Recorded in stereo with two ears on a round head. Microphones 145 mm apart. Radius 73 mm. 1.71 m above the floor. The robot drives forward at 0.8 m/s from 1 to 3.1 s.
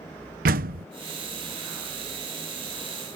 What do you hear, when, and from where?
0.5 s a door slam: 55° right (ahead or behind)